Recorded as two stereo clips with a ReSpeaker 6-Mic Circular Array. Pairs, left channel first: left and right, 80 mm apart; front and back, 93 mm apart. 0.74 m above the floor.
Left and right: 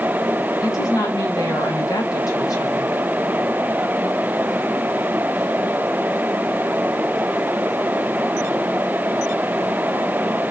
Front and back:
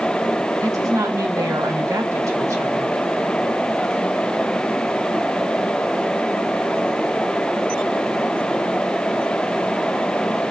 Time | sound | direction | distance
0.6 | a woman speaking | 125° left | 4 m